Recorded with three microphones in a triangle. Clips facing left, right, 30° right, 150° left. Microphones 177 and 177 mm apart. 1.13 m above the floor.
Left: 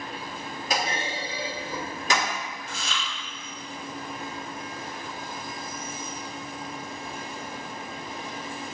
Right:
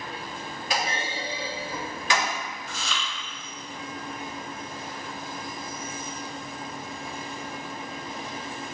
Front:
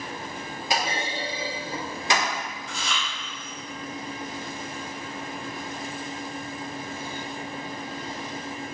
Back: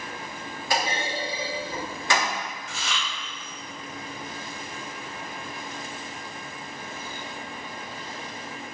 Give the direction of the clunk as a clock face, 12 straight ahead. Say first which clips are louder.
Left 1 dB, back 1 dB; 11 o'clock.